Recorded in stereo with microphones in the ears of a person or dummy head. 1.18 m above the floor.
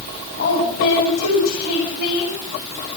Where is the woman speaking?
60° left (ahead or behind), 7.5 m.